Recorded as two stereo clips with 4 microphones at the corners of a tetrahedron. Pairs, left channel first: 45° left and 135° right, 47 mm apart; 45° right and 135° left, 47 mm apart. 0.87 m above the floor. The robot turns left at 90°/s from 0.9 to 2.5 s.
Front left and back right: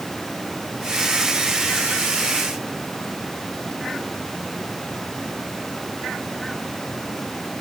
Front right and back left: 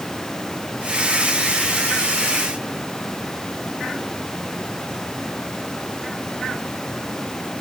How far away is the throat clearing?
I don't hear throat clearing.